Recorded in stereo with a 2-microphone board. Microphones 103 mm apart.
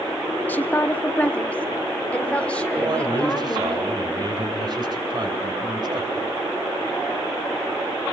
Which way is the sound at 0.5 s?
20° left (ahead or behind).